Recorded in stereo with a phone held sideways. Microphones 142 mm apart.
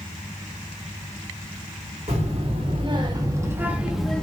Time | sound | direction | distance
2.1 | a child speaking | 50° right (ahead or behind) | 1.5 m